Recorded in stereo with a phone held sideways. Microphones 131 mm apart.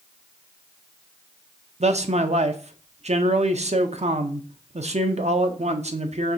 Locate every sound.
1.8 s a man speaking: 60° right (ahead or behind), 0.6 m